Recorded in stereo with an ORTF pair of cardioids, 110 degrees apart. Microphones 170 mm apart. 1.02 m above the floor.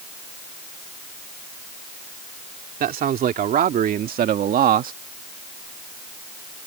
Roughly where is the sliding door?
No sliding door in this recording.